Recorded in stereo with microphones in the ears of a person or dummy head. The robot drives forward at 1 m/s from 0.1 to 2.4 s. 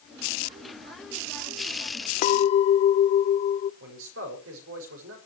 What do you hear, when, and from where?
2.2 s a clink: 45° left (ahead or behind), 0.6 m; by 3.7 s 35° left (ahead or behind), 0.7 m
3.8 s a man speaking: 75° right (ahead or behind), 6.5 m